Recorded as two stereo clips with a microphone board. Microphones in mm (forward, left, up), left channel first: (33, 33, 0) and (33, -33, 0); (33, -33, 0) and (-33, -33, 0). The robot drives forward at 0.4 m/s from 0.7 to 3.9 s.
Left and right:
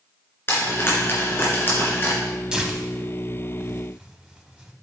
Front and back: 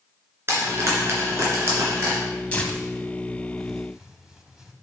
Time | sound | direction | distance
0.5 | frying | 135° left | 2.5 m
2.5 | tearing paper | 35° right | 1.0 m